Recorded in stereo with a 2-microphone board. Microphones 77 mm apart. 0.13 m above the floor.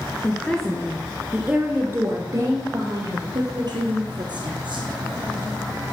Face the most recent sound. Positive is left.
turn(degrees=-70)  # may be behind; listen again after turning